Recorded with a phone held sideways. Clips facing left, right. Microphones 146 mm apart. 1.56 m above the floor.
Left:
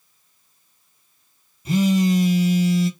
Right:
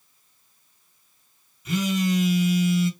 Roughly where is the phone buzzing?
Left.